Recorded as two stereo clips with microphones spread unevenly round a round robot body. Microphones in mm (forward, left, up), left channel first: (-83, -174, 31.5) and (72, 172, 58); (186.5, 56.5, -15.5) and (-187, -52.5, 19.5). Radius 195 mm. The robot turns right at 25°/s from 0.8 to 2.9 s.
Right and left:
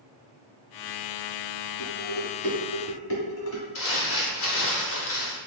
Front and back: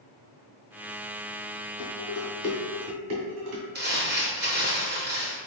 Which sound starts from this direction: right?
Crumpling, at 3.8 s.